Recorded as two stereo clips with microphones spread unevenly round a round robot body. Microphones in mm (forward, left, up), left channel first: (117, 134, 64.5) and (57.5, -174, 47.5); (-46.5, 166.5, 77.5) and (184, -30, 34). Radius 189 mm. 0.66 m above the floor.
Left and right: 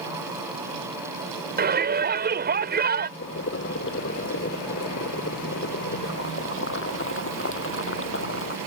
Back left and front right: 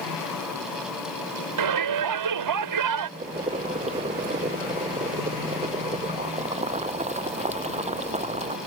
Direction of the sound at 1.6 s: 40° right.